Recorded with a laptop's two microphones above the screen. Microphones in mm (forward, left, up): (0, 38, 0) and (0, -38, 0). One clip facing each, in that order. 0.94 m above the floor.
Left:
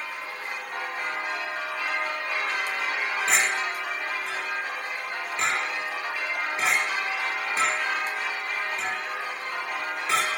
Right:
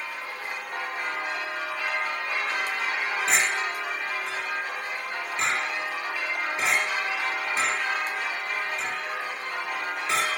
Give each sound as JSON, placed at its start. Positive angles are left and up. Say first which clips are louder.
{"t": 3.3, "sound": "a clink", "louder": "left 1 dB", "side_deg": 10, "distance_m": 1.7}